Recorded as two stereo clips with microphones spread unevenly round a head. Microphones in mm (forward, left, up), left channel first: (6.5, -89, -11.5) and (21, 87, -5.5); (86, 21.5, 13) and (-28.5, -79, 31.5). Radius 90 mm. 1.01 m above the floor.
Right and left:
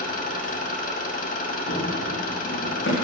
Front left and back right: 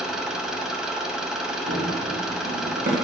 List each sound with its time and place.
0.0 s an engine running: 60° right, 0.9 m
1.7 s running footsteps: 135° right, 3.5 m; by 3.0 s 115° right, 3 m